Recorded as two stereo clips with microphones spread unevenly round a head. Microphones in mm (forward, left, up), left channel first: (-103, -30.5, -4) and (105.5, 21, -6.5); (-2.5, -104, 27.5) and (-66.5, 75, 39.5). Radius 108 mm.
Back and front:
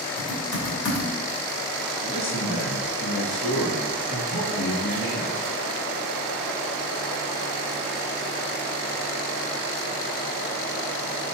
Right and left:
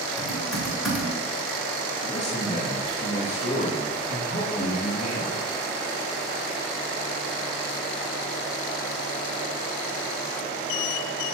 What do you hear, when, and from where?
0.2 s typing on a keyboard: 160° right, 2.5 m
2.0 s a man speaking: 125° right, 3 m